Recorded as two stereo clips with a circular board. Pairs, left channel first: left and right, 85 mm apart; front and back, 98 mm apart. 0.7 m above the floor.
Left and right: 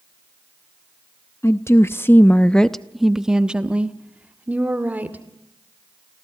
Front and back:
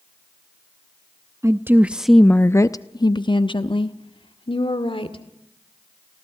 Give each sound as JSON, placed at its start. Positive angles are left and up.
{"t": 1.4, "sound": "a woman speaking", "azimuth_deg": 135, "distance_m": 0.7}